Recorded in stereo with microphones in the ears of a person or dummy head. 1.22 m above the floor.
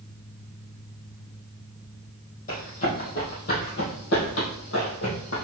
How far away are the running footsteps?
About 2.5 m.